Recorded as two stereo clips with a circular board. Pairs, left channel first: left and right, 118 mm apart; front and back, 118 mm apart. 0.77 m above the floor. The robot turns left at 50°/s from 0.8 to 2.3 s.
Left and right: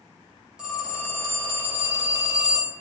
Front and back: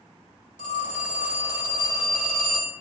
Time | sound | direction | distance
0.6 | a phone ringing | 10° right | 2.5 m